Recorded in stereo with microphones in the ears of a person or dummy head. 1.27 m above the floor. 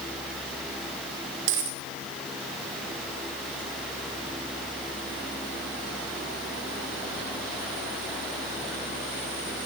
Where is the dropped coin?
60° right (ahead or behind), 1.4 m.